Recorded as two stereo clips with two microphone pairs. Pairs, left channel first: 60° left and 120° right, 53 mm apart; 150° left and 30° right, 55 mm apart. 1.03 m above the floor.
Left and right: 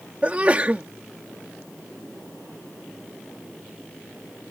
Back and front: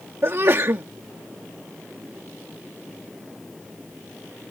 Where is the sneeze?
60° right.